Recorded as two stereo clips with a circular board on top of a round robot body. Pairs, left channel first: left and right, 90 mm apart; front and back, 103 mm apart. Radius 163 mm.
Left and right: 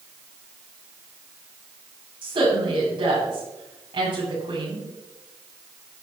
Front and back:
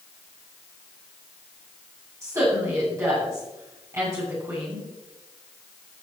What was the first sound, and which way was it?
A woman speaking, 120° right.